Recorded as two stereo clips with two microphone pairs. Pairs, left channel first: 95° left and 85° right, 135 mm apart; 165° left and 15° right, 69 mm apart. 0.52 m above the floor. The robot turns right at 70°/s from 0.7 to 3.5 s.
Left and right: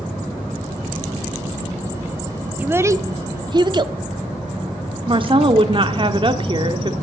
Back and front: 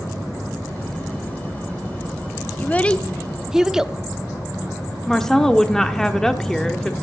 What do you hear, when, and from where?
2.6 s a child speaking: 155° right, 0.6 m; by 4.0 s 90° right, 0.6 m
5.1 s a woman speaking: 115° right, 1.0 m